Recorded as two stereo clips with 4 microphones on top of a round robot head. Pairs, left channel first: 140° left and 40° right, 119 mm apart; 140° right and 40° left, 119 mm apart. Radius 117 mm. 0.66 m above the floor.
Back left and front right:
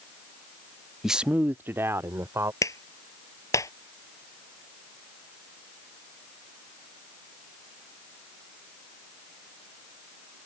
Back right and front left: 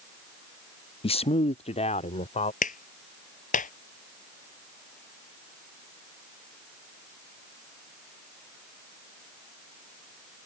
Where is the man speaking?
125° right; by 2.5 s 105° right.